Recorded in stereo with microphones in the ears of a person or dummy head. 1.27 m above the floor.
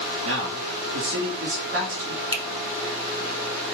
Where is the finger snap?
20° left (ahead or behind), 0.9 m.